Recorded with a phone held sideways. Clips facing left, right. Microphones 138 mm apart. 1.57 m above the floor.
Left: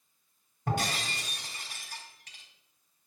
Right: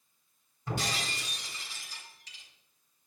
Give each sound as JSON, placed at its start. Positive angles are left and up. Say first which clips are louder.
{"t": 0.7, "sound": "breaking glass", "louder": "left 3 dB", "side_deg": 55, "distance_m": 3.5}